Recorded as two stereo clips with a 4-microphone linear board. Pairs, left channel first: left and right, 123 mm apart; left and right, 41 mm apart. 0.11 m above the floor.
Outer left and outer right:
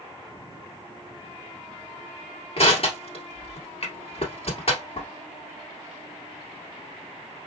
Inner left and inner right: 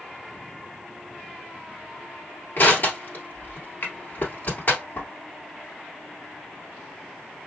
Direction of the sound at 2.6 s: 50° left (ahead or behind).